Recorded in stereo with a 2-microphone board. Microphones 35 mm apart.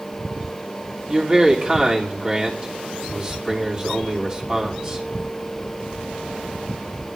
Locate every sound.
1.1 s a man speaking: 25° right (ahead or behind), 3 m